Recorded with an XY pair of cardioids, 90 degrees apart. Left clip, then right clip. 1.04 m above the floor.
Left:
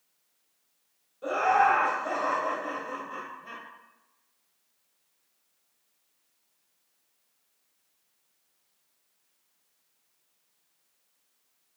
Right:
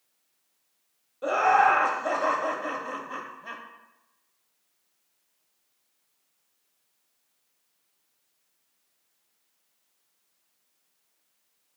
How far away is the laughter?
About 0.5 m.